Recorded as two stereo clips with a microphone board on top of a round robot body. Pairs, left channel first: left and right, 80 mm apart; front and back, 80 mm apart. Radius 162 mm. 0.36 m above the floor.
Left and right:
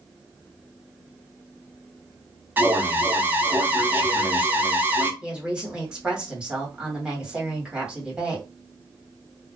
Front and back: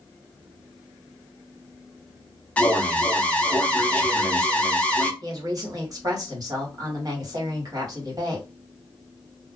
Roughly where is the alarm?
Ahead right.